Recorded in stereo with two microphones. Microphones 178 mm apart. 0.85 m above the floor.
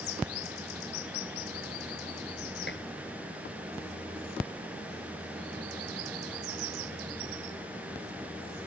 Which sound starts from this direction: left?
Dishes clattering, at 2.7 s.